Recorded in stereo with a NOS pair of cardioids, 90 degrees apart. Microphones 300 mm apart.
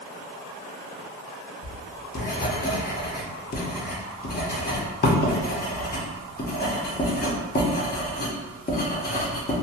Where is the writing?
30° left, 0.8 m.